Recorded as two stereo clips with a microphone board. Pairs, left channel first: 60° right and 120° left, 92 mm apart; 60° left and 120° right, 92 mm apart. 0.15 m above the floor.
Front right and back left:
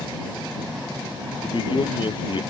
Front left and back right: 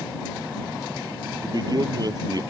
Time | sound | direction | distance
1.4 | a man speaking | 80° right | ?